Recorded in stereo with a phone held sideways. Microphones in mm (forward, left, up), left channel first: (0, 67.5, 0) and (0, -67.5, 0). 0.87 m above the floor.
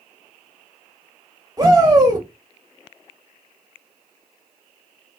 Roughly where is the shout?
Right.